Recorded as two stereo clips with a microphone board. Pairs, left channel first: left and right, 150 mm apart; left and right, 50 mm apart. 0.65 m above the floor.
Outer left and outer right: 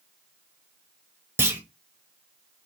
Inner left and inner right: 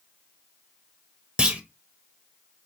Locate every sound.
1.4 s a clunk: 15° right (ahead or behind), 0.9 m